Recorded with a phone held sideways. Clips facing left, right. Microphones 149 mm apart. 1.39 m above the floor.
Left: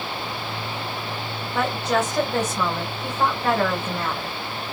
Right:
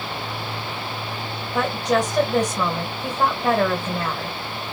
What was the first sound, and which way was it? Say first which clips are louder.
A woman speaking: right 2 dB; 15° right (ahead or behind).